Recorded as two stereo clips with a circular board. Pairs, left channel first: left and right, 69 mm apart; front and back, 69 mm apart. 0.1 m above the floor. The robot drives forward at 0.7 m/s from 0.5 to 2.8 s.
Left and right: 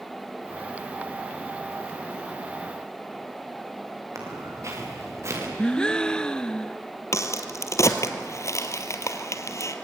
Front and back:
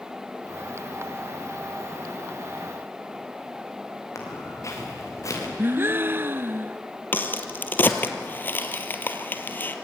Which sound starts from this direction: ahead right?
Footsteps, at 4.2 s.